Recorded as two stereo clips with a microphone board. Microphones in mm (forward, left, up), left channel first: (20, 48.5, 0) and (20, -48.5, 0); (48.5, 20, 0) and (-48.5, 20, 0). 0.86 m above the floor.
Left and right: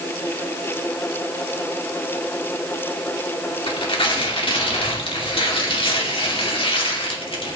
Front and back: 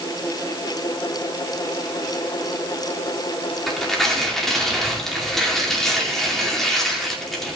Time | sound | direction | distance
3.7 | tearing paper | 85° left | 2.5 m